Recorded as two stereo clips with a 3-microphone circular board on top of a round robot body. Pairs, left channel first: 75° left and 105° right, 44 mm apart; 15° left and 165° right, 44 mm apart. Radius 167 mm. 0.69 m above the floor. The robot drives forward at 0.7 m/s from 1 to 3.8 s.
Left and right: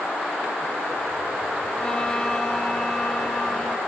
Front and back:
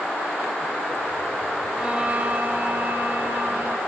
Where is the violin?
140° left, 1.4 m; by 3.8 s 165° left, 2.5 m.